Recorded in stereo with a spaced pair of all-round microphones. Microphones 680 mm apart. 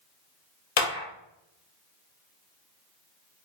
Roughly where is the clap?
Left.